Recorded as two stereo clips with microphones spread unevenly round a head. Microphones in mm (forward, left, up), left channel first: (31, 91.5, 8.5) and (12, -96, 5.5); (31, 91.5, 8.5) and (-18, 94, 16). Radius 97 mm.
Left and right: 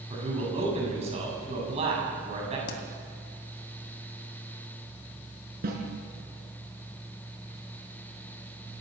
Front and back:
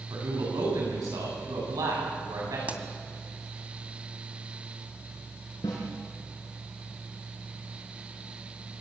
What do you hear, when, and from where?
0.1 s a man speaking: 160° right, 8 m
2.7 s a pop: 125° left, 2.5 m
5.6 s a snare drum: 55° right, 5 m